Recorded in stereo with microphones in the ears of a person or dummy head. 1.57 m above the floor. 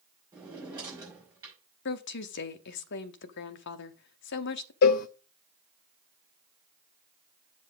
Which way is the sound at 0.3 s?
20° right (ahead or behind).